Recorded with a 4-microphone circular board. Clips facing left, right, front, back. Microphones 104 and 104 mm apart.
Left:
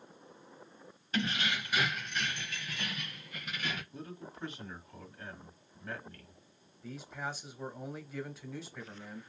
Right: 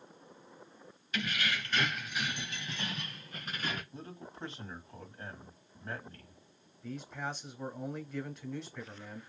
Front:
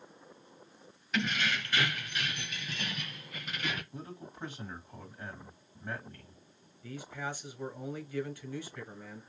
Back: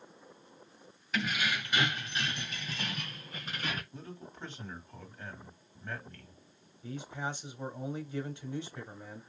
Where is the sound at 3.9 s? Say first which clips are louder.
Left 1 dB, front 2 dB; 70° right, 1.7 m.